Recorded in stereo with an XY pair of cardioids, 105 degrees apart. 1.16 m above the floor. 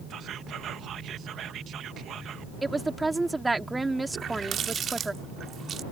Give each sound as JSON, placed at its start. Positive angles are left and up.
{"t": 0.1, "sound": "whispering", "azimuth_deg": -65}
{"t": 2.6, "sound": "a woman speaking", "azimuth_deg": -15}
{"t": 4.1, "sound": "a running tap", "azimuth_deg": -55}